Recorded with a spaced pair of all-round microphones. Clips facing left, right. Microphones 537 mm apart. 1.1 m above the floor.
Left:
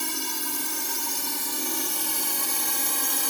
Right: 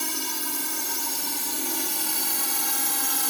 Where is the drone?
Centre (ahead or behind); by 3.3 s 5° right (ahead or behind).